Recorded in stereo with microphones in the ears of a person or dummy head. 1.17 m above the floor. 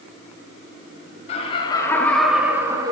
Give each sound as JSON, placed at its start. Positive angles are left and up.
{"t": 1.3, "sound": "laughter", "side_deg": 35, "distance_m": 0.9}